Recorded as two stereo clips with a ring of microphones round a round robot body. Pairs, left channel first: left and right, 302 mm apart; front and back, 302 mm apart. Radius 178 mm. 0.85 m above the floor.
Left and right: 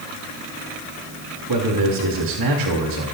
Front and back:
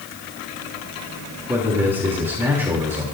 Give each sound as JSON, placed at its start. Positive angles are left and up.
{"t": 1.5, "sound": "a man speaking", "azimuth_deg": -100, "distance_m": 3.0}